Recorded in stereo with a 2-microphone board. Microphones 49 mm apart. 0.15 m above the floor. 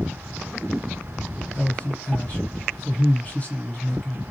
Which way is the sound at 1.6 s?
30° left (ahead or behind).